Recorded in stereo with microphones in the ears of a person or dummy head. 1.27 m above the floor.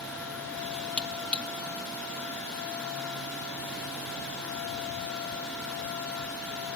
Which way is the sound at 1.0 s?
5° left (ahead or behind).